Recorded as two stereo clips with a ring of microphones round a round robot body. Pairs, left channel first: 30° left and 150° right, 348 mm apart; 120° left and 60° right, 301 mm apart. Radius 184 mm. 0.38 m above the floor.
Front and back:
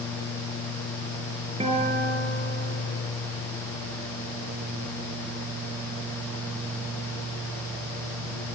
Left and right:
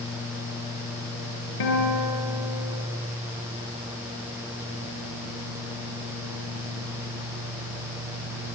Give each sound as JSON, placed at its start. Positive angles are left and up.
{"t": 1.6, "sound": "a guitar", "azimuth_deg": 135, "distance_m": 7.0}